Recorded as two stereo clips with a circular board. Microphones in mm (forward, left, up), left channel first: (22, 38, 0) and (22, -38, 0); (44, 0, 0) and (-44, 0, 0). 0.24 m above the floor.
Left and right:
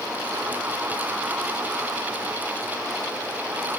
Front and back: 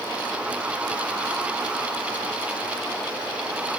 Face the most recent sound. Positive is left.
No sound to turn to.